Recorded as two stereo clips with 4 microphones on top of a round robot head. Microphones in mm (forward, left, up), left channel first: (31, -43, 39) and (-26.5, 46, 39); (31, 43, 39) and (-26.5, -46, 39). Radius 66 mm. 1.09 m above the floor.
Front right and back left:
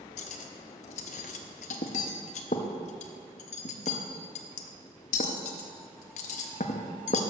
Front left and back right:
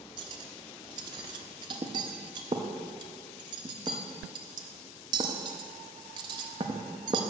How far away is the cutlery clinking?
About 0.5 m.